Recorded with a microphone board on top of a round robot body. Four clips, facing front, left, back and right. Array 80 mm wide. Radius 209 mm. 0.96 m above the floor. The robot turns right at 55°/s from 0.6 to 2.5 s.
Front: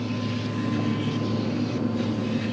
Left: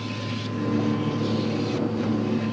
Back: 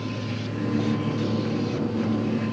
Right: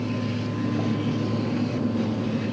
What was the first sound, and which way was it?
Only background noise.